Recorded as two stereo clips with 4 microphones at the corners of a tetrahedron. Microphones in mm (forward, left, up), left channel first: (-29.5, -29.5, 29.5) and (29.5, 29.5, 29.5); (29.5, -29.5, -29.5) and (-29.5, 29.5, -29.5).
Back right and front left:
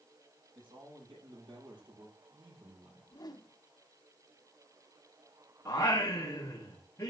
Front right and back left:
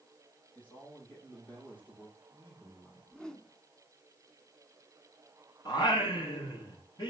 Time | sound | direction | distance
0.6 | a man speaking | 25° left | 8 m
3.1 | a whoosh | 125° right | 1.1 m
5.7 | singing | 80° right | 5.5 m